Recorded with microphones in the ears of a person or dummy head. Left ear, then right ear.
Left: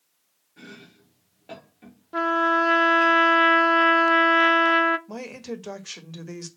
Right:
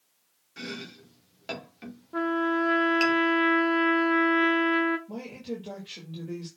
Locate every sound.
0.6 s chopping: 55° right (ahead or behind), 2.5 m
2.1 s a trumpet: 30° left (ahead or behind), 0.6 m
5.1 s a woman speaking: 55° left (ahead or behind), 1.6 m